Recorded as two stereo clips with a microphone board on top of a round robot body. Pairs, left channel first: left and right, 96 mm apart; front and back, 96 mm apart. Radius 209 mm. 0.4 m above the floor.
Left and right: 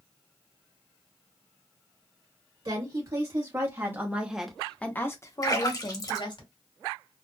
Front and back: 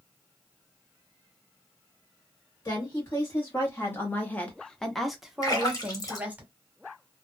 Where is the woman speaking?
55° right, 1.7 m; by 6.4 s 110° left, 1.6 m.